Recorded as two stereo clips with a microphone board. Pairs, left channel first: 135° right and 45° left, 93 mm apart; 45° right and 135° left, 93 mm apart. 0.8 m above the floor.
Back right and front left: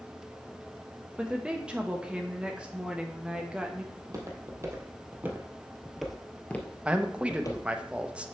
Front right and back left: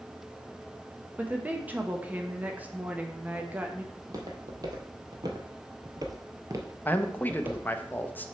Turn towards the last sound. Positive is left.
turn(degrees=-15)